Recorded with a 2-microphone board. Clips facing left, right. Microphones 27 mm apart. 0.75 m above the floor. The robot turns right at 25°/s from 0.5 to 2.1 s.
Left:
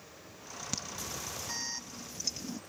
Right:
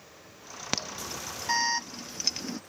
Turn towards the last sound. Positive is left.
turn(degrees=-50)  # may be behind; listen again after turning